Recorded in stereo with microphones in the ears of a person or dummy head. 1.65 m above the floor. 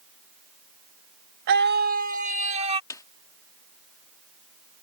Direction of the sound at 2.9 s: 20° left (ahead or behind).